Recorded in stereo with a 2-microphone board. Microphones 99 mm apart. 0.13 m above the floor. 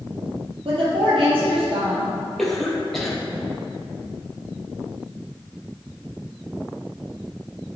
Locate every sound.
0.7 s a woman speaking: 65° right (ahead or behind), 4 m
2.4 s a cough: 5° left (ahead or behind), 3.5 m